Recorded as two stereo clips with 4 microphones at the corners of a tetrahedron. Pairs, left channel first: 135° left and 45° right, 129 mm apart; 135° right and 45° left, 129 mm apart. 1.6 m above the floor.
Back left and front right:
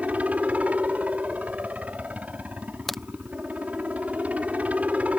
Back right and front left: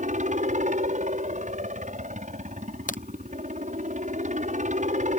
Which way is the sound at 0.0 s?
35° left.